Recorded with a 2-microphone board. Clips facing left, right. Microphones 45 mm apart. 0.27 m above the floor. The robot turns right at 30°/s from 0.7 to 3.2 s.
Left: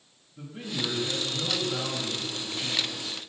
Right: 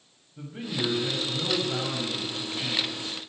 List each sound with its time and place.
0.4 s a man speaking: 140° right, 1.6 m; by 3.2 s 65° right, 1.6 m